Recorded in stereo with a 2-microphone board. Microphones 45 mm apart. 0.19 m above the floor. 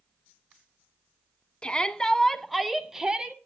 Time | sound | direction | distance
1.6 | a shout | 20° left (ahead or behind) | 1.3 m